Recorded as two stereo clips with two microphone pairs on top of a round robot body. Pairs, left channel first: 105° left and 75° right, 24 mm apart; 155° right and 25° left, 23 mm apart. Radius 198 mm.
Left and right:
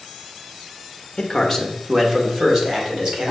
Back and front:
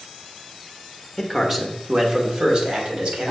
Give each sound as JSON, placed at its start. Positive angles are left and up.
{"t": 1.2, "sound": "a man speaking", "azimuth_deg": 115, "distance_m": 1.0}